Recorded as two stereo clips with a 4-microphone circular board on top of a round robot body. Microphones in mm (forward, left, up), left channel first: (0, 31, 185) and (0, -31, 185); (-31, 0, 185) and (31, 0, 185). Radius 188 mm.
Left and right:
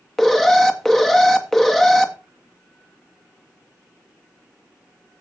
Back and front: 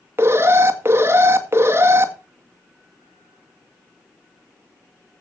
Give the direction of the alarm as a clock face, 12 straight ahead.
12 o'clock.